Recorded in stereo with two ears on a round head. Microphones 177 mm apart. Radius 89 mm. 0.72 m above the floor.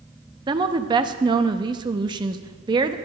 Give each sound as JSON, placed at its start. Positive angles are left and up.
{"t": 0.5, "sound": "a woman speaking", "side_deg": -25, "distance_m": 0.7}